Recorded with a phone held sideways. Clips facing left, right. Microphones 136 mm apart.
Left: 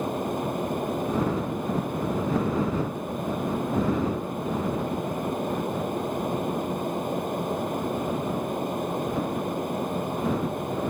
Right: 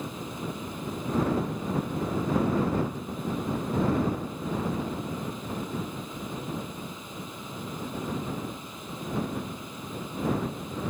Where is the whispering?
I don't hear whispering.